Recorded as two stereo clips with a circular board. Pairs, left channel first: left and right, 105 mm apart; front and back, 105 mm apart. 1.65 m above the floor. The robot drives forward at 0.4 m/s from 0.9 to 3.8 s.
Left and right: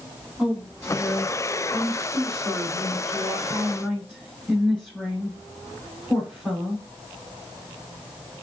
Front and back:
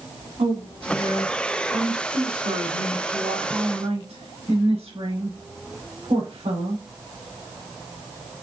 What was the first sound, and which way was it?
A woman speaking, 175° left.